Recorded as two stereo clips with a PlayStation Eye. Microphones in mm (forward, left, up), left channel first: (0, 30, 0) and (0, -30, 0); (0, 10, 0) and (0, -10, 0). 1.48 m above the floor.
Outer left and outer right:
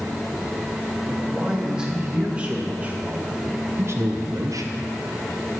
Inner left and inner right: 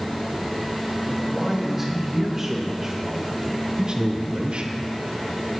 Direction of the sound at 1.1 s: 10° right (ahead or behind).